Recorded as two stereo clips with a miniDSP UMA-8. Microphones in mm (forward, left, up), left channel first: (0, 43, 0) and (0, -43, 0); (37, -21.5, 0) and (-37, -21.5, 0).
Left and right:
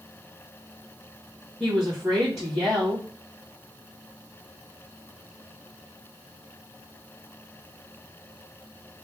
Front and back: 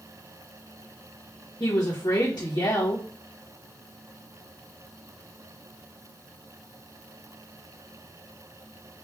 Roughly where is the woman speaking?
Ahead.